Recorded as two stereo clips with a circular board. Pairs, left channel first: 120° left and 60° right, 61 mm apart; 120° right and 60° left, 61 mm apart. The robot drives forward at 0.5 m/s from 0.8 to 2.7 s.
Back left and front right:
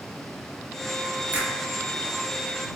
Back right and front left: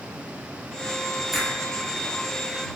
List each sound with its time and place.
1.3 s a finger snap: 20° right, 1.5 m